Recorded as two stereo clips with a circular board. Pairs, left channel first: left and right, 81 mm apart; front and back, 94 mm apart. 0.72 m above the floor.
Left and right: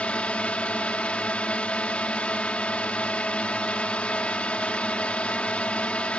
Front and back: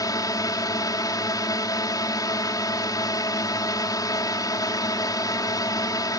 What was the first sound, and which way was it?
A drone, 20° left.